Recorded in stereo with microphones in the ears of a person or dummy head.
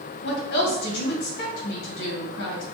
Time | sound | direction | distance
0.2 | a woman speaking | 60° left (ahead or behind) | 1.8 m